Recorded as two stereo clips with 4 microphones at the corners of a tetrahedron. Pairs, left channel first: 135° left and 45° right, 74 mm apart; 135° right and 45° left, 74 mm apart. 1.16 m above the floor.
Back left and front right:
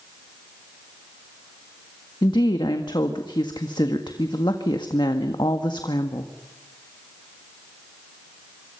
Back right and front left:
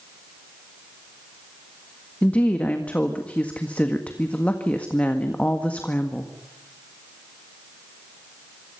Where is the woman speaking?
155° left, 1.7 m.